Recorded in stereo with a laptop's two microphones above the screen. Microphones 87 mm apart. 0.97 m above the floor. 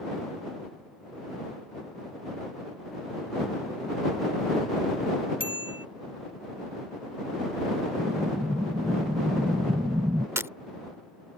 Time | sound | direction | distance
5.4 | a bicycle bell | 80° left | ?
8.0 | an explosion | 40° right (ahead or behind) | ?
10.4 | breaking glass | 30° right (ahead or behind) | ?